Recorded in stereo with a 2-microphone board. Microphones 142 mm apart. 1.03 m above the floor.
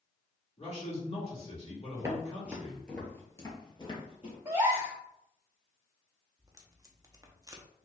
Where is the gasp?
20° right (ahead or behind), 1.4 m.